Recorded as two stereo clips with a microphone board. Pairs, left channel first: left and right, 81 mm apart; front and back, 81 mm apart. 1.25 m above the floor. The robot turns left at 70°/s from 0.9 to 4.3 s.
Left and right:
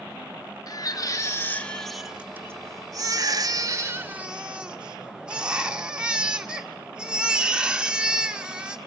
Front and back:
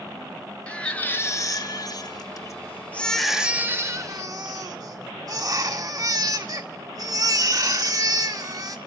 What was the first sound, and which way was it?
A baby crying, 75° left.